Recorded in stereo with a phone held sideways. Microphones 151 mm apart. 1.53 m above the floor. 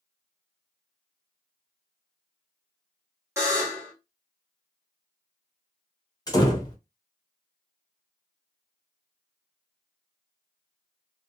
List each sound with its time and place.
3.4 s a buzzer: 20° right (ahead or behind), 1.1 m
6.3 s a door slam: 25° left (ahead or behind), 0.8 m